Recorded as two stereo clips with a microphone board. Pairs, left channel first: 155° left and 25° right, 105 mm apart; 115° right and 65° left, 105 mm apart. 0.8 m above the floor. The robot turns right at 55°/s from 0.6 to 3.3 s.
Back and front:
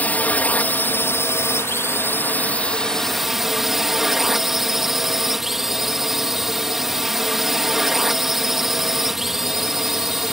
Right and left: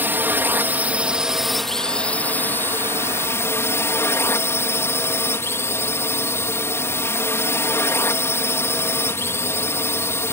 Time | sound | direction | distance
0.0 | a drone | 105° left | ?